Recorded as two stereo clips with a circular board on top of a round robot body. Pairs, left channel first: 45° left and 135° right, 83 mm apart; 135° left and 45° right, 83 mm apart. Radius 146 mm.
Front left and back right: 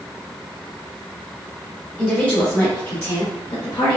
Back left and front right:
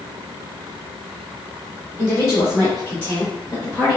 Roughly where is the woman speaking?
Left.